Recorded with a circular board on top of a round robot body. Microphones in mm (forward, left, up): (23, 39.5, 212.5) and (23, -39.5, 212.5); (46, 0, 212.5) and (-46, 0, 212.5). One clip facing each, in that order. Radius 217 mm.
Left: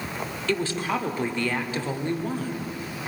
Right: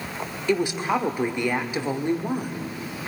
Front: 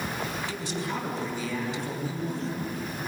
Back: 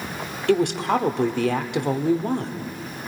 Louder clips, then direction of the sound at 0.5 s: Right 4 dB, back 12 dB; 165° right.